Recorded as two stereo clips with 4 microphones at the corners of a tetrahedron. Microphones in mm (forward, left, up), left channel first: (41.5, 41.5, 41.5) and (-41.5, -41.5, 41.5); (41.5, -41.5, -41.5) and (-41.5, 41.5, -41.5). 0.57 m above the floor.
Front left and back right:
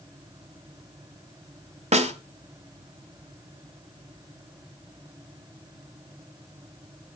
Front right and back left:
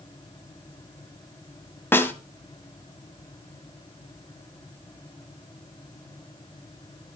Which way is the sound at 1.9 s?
115° right.